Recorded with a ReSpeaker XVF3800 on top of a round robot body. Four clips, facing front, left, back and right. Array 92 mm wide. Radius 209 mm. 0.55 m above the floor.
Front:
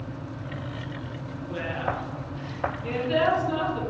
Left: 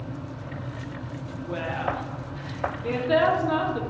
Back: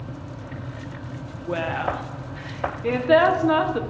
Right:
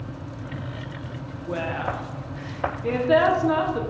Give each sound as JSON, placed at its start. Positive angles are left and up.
{"t": 1.5, "sound": "a woman speaking", "azimuth_deg": -165, "distance_m": 1.3}